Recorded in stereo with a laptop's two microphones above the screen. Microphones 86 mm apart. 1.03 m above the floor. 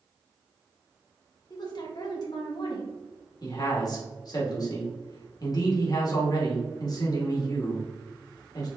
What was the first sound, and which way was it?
A woman speaking, 50° left (ahead or behind).